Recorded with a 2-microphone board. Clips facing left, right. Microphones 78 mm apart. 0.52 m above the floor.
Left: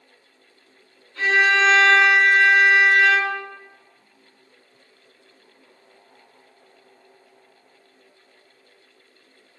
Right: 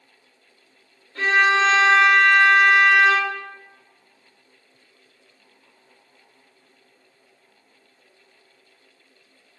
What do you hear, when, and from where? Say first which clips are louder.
1.1 s a violin: even; 55° right (ahead or behind), 1.7 m